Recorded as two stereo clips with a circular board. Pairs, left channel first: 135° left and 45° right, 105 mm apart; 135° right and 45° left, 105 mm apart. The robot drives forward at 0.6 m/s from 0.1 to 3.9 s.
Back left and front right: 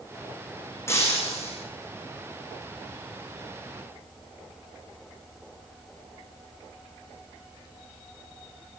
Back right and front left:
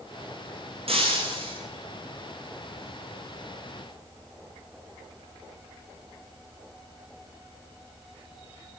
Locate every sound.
0.9 s breaking glass: 70° left, 8.5 m; by 1.6 s 75° left, 8.5 m